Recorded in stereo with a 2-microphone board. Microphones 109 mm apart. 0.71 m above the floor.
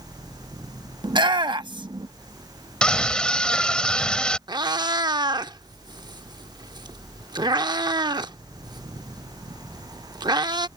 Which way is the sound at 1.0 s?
45° right (ahead or behind).